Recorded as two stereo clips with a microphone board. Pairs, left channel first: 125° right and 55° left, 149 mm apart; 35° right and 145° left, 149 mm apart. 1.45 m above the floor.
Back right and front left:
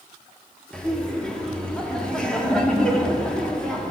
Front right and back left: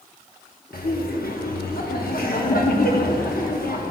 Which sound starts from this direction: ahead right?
Laughter, at 0.7 s.